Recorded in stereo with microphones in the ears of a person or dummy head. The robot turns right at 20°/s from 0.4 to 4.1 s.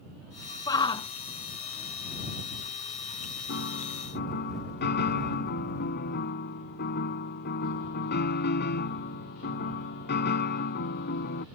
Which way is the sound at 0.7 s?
20° left (ahead or behind).